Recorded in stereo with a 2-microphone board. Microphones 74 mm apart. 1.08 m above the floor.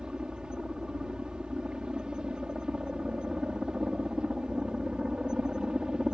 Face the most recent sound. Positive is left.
turn(degrees=-10)  # may be behind; listen again after turning